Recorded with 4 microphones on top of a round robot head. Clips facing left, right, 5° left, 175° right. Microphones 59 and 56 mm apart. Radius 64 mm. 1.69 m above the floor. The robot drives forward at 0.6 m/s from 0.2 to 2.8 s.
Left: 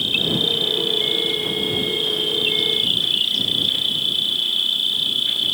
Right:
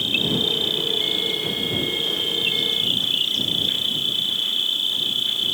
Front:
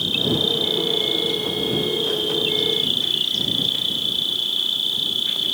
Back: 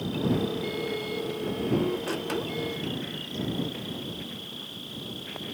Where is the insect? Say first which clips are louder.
Left 1 dB, front 4 dB; 5° right; by 5.5 s 10° right.